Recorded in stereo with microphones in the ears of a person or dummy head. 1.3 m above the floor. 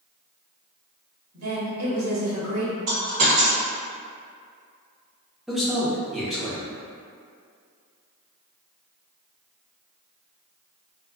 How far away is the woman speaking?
About 1.4 m.